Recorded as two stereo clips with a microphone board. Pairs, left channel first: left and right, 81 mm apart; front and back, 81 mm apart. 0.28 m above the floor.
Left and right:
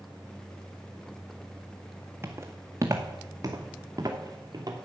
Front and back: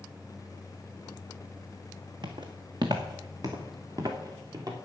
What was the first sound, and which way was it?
Footsteps, 155° right.